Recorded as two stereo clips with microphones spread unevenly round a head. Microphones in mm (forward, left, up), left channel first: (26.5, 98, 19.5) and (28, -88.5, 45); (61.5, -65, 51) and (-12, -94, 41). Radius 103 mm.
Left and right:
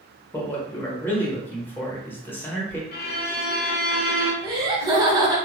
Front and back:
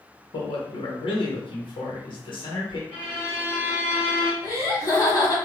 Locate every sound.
0.3 s a man speaking: 10° left, 0.9 m
2.9 s a violin: 55° left, 0.7 m
4.4 s laughter: 20° right, 1.4 m